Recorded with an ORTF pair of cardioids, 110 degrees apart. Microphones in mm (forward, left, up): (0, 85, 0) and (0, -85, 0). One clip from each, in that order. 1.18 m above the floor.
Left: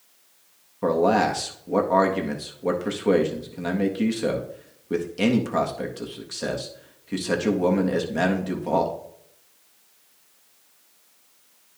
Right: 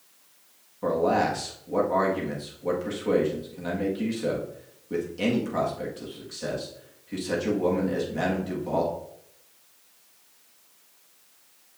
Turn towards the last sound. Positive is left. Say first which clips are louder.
# left 3 dB
turn(degrees=40)